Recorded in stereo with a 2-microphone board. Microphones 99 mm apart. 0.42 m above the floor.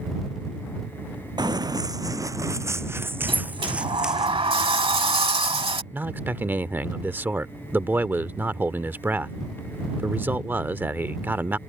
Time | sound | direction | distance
1.4 | running footsteps | 50° right (ahead or behind) | ?
3.3 | a sliding door | 85° right | ?
5.9 | a man speaking | 20° right (ahead or behind) | ?